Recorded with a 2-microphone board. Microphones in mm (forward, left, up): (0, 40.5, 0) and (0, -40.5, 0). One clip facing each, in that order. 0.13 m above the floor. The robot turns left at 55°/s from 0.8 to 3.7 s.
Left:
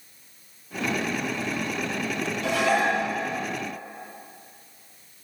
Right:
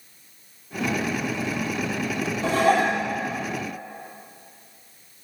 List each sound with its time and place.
2.4 s dishes clattering: 30° right (ahead or behind), 2.5 m; by 3.0 s 55° right (ahead or behind), 2.5 m